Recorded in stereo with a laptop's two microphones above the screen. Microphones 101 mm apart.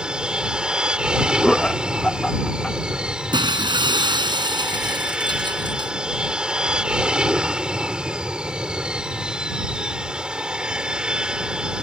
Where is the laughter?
5° left (ahead or behind).